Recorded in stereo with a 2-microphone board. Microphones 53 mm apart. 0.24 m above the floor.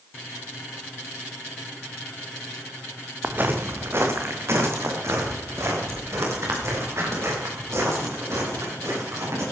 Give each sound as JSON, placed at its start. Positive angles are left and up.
{"t": 3.2, "sound": "footsteps", "side_deg": -40, "distance_m": 1.6}